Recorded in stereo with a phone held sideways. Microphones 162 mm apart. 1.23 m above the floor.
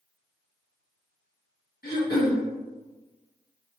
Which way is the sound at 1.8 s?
70° left (ahead or behind).